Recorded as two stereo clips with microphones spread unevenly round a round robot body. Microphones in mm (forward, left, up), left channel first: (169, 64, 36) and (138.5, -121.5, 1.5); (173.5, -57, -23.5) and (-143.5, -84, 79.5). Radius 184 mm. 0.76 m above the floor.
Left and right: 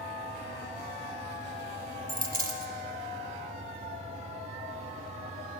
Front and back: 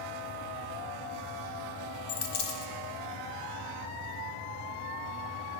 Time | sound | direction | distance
2.1 | a dropped coin | 50° right | 1.0 m